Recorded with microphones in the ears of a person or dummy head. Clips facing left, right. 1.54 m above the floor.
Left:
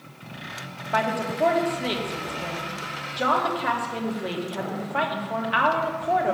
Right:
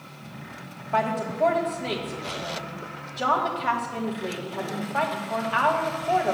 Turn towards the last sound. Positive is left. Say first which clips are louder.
# even
turn(degrees=20)  # may be behind; listen again after turning